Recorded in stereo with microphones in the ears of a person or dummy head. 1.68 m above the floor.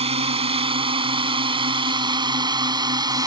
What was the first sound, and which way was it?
A drone, 35° right (ahead or behind).